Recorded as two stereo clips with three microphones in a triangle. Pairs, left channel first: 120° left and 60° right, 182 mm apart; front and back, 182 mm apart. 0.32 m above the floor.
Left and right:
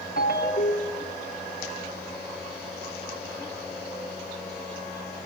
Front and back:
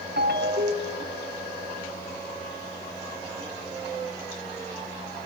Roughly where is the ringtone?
Behind left.